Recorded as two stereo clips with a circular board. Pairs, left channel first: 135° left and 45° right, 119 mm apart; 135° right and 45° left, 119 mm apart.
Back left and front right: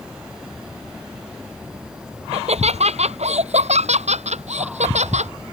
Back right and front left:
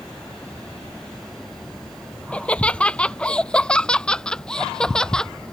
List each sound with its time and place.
2.3 s laughter: 55° right; by 5.3 s 50° right